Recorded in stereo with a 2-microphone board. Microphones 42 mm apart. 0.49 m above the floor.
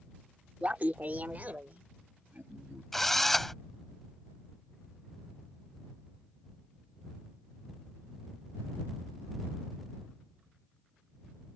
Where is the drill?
5° left (ahead or behind).